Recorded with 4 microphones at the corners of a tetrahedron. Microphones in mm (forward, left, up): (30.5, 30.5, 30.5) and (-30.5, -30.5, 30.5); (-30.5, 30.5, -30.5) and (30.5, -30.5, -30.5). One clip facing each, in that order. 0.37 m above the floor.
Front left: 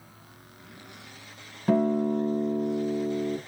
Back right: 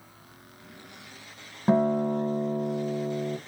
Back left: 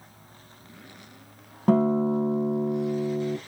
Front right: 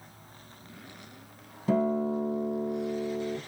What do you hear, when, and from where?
1.7 s a guitar: 165° left, 0.9 m